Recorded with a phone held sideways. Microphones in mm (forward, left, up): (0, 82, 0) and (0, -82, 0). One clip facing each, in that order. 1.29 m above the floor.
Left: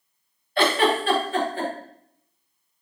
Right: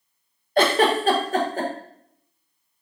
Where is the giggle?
40° right (ahead or behind), 1.0 m.